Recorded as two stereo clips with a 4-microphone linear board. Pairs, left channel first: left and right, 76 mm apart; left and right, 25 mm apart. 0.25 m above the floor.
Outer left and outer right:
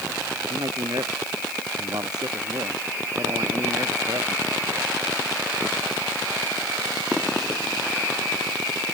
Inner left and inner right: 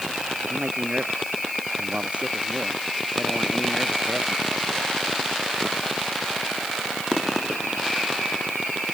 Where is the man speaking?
60° right (ahead or behind); by 4.9 s 55° right (ahead or behind).